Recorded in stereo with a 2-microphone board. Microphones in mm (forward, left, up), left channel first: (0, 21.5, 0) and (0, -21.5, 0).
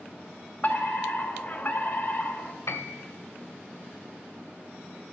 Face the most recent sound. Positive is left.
turn(degrees=70)  # may be behind; listen again after turning